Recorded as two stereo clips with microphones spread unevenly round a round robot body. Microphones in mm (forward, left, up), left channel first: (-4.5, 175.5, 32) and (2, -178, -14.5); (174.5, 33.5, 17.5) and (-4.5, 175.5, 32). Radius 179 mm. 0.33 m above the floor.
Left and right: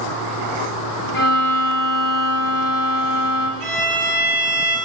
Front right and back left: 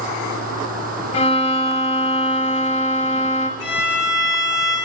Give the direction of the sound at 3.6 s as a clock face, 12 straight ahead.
12 o'clock.